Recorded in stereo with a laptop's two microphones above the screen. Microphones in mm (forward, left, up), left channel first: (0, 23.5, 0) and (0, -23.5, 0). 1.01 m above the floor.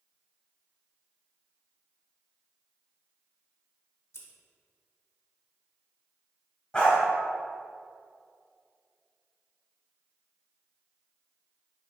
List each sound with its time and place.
4.1 s scissors: 60° left (ahead or behind), 1.1 m
6.7 s a dog barking: 25° left (ahead or behind), 2.5 m